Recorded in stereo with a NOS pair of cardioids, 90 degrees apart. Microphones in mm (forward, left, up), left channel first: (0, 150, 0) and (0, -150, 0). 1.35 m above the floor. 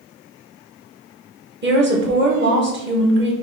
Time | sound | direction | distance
1.6 | a woman speaking | 35° right | 1.5 m